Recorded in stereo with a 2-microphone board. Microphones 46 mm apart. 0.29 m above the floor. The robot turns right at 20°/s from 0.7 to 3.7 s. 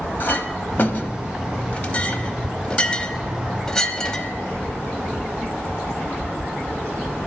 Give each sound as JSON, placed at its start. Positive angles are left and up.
{"t": 0.2, "sound": "a clink", "side_deg": 45, "distance_m": 0.9}